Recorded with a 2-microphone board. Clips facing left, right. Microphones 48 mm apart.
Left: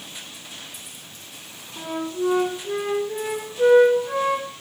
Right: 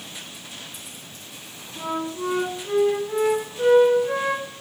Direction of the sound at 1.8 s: 40° right (ahead or behind).